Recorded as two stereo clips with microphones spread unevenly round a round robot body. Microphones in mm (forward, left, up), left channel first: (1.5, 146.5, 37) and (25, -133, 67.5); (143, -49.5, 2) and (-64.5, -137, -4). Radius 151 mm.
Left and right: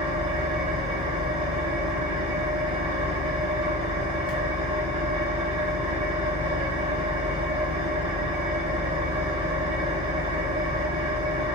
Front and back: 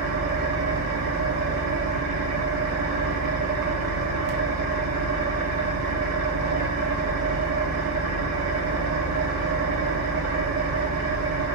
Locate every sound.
0.0 s an engine running: 160° right, 0.7 m